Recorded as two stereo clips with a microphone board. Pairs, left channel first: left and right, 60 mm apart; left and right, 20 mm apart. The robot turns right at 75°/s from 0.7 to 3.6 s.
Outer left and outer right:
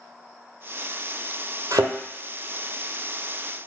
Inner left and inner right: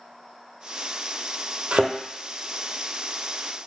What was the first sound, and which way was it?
A thud, 80° right.